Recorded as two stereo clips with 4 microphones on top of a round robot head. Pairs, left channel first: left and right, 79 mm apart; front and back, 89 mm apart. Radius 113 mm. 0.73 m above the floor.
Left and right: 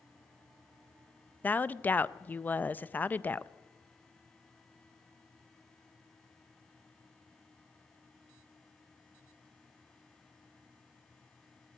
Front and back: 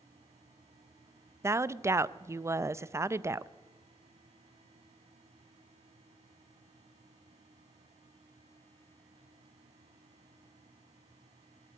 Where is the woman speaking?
145° left, 0.6 m.